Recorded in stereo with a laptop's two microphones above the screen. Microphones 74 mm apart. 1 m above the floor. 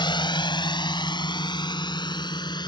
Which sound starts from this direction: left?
A drone, at 0.0 s.